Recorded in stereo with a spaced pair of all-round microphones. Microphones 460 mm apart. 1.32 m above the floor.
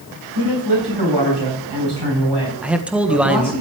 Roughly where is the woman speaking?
Right.